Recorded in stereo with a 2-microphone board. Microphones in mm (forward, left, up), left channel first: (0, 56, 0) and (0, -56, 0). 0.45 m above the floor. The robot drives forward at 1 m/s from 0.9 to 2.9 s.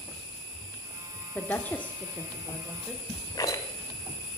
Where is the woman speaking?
15° left (ahead or behind), 0.8 m; by 3.0 s 5° left (ahead or behind), 1.5 m.